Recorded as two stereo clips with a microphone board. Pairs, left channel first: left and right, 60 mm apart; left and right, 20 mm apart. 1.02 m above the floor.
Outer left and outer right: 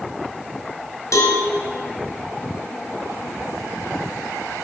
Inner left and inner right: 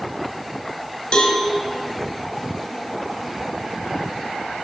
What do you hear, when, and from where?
1.1 s a cowbell: 65° left (ahead or behind), 1.7 m